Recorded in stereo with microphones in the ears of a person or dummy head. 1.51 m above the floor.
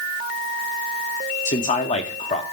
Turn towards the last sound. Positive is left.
turn(degrees=40)  # may be behind; listen again after turning